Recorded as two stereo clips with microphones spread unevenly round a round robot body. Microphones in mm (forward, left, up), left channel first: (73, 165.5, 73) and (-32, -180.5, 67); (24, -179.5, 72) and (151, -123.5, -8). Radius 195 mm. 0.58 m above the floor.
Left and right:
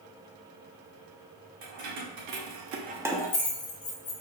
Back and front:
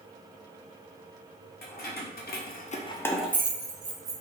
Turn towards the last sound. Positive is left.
turn(degrees=25)